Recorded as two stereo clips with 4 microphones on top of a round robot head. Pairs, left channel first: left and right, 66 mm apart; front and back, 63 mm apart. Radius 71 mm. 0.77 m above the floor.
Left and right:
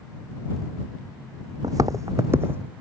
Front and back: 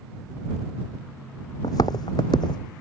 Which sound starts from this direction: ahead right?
Footsteps, at 1.6 s.